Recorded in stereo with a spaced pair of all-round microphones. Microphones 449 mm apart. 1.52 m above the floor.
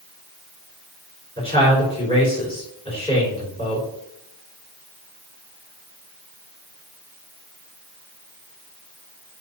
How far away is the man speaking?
About 6 m.